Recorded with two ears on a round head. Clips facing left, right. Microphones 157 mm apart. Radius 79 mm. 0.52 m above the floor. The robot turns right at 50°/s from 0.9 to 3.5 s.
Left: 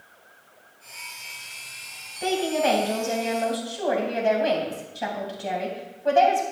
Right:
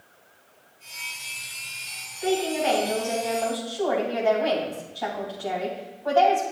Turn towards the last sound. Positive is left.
turn(degrees=155)